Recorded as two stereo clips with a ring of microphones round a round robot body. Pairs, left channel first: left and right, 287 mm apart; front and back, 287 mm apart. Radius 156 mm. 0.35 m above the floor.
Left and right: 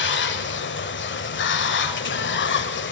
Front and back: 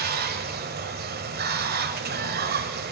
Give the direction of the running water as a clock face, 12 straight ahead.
8 o'clock.